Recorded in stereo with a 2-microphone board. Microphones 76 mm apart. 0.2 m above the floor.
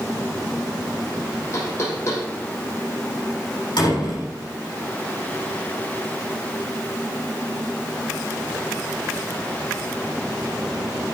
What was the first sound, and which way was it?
Knocking, 40° left (ahead or behind).